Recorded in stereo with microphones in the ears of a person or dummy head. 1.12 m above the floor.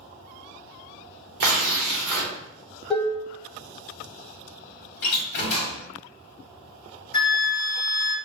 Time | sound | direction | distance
1.4 | tearing paper | 60° right (ahead or behind) | 1.1 m
2.9 | dishes clattering | 5° left (ahead or behind) | 0.9 m
5.0 | a door slam | 50° left (ahead or behind) | 1.8 m
7.1 | a flute | 30° left (ahead or behind) | 1.6 m